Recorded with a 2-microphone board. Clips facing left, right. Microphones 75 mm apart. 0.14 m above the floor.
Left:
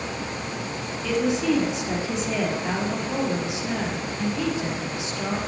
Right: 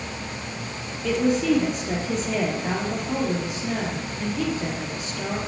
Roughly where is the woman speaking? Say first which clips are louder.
Right 2 dB; right.